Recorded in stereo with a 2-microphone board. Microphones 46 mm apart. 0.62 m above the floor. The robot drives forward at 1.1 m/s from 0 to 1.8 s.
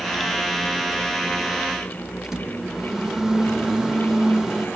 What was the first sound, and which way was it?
A microwave, 10° right (ahead or behind).